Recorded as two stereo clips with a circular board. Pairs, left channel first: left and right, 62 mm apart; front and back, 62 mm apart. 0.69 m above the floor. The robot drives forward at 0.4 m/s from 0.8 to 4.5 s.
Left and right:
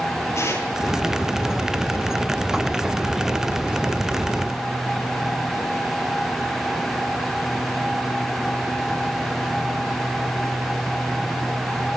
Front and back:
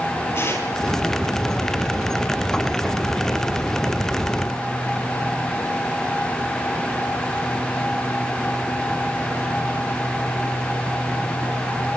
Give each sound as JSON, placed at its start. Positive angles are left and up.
{"t": 0.3, "sound": "tearing paper", "azimuth_deg": 50, "distance_m": 9.5}